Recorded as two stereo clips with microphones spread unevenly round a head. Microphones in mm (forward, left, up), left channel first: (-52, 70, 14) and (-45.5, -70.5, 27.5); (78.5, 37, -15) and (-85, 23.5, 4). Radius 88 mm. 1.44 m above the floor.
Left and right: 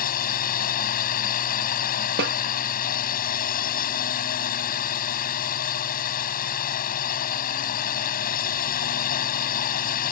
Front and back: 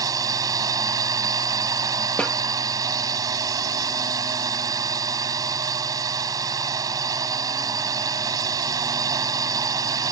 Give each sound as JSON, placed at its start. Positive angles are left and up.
{"t": 0.0, "sound": "a drone", "azimuth_deg": 115}
{"t": 2.2, "sound": "a snare drum", "azimuth_deg": -80}